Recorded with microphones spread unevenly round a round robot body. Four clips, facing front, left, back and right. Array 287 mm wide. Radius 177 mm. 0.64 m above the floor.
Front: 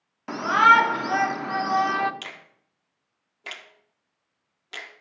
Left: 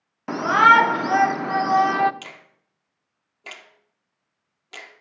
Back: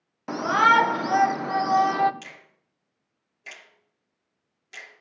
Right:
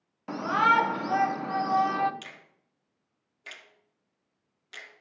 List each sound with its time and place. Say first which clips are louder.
0.3 s a shout: left 9 dB, front 2 dB; 90° left, 1.1 m
2.2 s a finger snap: left 6 dB, front 4 dB; 50° left, 1.4 m